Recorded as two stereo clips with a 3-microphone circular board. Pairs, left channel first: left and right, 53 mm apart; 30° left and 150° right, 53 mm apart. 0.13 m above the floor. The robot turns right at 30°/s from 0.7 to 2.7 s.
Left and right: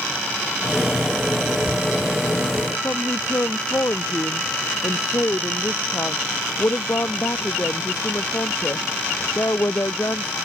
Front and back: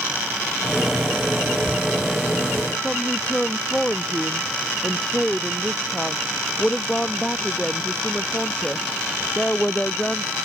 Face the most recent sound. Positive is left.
turn(degrees=100)